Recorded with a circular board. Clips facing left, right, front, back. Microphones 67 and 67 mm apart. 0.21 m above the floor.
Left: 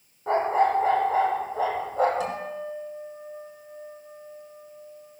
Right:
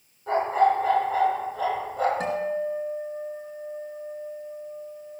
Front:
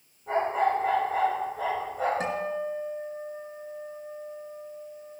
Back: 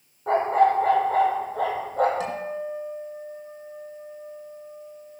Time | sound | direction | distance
0.3 | a dog barking | 150° left | 2.5 m
2.2 | a guitar | 45° right | 3 m